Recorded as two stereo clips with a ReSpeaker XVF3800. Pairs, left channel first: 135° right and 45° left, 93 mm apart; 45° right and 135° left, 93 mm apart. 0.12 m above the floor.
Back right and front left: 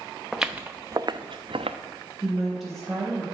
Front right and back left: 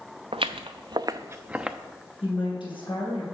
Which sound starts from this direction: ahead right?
A woman speaking, at 2.2 s.